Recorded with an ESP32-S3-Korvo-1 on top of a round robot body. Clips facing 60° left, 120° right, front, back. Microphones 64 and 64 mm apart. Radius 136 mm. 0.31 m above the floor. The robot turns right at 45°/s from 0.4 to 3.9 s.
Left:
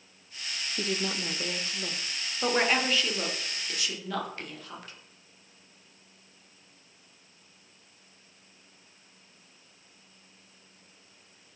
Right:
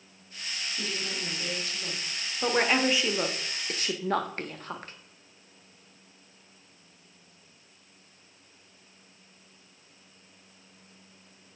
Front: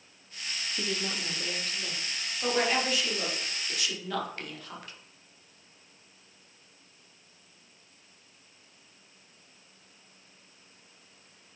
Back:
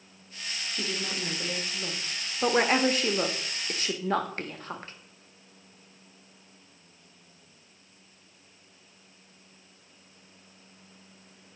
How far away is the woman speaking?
About 1.3 m.